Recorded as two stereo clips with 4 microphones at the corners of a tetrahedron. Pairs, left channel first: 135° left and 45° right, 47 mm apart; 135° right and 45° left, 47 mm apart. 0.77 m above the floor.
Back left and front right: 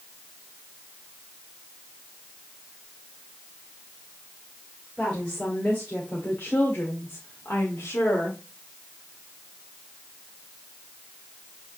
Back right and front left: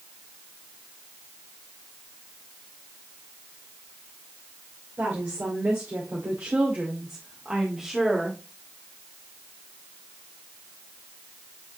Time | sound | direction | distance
5.0 | a woman speaking | 65° left | 2.5 m